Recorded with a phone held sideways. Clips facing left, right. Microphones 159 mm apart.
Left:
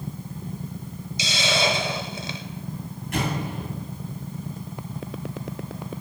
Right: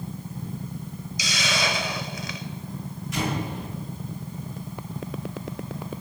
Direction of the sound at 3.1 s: 55° left (ahead or behind).